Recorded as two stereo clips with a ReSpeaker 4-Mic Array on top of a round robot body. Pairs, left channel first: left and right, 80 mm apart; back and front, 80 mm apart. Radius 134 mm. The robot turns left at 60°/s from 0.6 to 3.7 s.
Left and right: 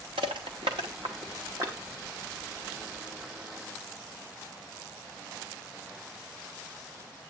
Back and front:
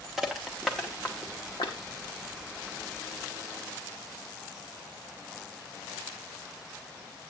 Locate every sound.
0.2 s crushing: 85° right, 0.8 m; by 1.8 s 155° right, 0.8 m